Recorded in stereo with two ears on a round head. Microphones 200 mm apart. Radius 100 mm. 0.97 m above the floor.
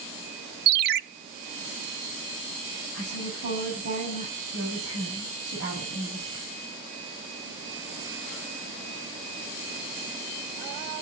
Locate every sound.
0.7 s a ringtone: 45° right (ahead or behind), 0.6 m
2.9 s a woman speaking: 60° right (ahead or behind), 7.5 m